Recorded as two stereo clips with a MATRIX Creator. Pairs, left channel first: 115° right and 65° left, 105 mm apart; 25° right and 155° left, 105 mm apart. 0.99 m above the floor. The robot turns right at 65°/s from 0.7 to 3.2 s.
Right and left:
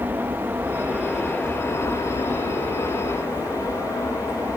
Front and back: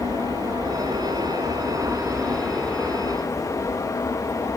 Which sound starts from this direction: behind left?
An aircraft, at 0.0 s.